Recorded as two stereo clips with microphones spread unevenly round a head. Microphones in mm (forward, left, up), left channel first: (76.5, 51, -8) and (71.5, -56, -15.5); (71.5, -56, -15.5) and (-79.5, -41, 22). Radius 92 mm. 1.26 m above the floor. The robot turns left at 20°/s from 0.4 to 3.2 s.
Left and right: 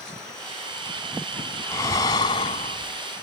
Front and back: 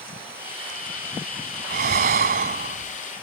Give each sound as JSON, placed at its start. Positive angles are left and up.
{"t": 1.7, "sound": "breathing", "azimuth_deg": 155}